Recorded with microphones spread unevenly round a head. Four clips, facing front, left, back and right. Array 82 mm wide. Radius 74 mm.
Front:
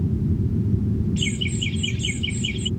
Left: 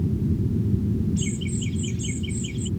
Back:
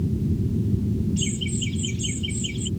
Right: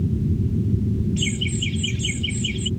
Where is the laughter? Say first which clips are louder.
Right 2 dB, front 1 dB; 40° right.